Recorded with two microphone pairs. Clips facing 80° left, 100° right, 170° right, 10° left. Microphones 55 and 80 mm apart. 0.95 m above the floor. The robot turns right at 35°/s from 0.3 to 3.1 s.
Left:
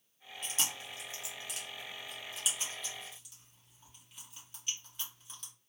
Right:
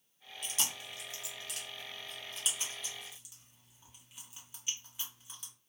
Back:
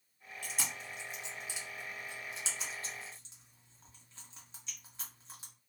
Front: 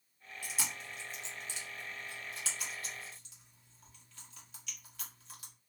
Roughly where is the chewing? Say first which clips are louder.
Left 1 dB, even; left.